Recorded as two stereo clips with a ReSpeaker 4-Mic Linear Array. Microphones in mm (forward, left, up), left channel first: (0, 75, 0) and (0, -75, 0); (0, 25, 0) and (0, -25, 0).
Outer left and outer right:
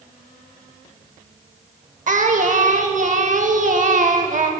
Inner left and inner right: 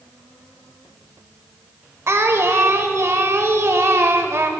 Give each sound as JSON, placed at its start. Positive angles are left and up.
{"t": 2.1, "sound": "singing", "side_deg": -60, "distance_m": 0.6}